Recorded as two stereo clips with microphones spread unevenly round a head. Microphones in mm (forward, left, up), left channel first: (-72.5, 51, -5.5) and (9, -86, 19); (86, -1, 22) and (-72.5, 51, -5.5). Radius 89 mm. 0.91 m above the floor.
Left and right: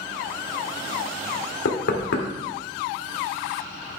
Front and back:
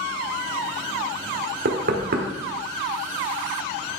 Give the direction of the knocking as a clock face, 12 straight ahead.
8 o'clock.